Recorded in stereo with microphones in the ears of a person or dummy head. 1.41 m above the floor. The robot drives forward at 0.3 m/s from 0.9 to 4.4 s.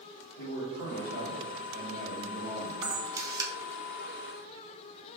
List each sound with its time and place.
0.4 s a man speaking: 85° left, 1.2 m; by 2.7 s 60° left (ahead or behind), 1.4 m
2.8 s a camera shutter: 20° right (ahead or behind), 0.7 m; by 3.5 s 25° right (ahead or behind), 0.5 m